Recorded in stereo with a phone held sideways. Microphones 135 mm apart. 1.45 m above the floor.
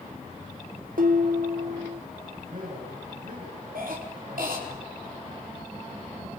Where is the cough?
80° right, 4.5 m.